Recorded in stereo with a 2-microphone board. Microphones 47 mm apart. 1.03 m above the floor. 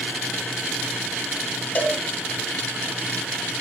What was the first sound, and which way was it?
A cowbell, 40° left (ahead or behind).